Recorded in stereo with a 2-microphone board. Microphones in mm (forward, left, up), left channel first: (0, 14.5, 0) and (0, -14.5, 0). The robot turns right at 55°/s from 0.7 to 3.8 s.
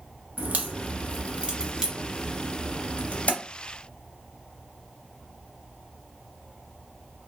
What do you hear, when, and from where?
0.4 s a crack: 70° right (ahead or behind), 0.8 m; by 3.3 s 55° left (ahead or behind), 0.8 m